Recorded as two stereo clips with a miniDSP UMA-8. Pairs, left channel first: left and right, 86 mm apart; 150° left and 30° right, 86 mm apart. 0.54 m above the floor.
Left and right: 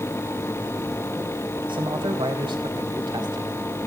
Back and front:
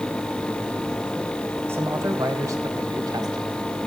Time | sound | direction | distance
1.7 | a man speaking | 90° right | 3.5 m